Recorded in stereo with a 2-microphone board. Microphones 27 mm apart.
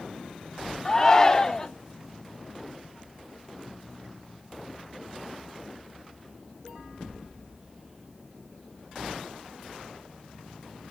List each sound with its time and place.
0.8 s a shout: 20° left (ahead or behind), 0.7 m